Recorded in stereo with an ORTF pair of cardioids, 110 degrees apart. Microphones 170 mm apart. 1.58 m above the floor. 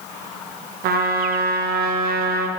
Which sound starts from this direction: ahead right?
A trumpet, at 0.8 s.